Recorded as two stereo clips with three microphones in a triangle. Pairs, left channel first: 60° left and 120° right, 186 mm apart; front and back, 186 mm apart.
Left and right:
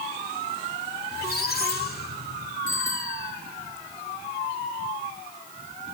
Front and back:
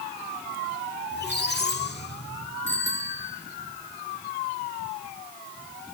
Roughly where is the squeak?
Ahead left.